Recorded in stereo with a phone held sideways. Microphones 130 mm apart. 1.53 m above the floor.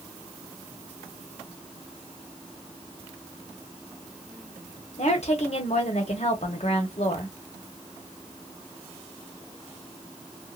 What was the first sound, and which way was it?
A woman speaking, 60° left (ahead or behind).